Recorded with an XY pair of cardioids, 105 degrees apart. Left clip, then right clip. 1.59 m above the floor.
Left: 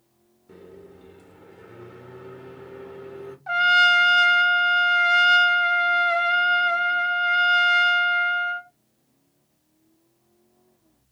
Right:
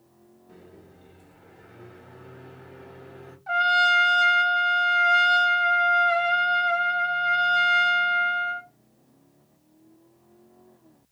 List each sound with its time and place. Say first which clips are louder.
0.5 s a microwave: left 6 dB; 50° left, 1.1 m
3.5 s a trumpet: left 3 dB; 35° left, 0.6 m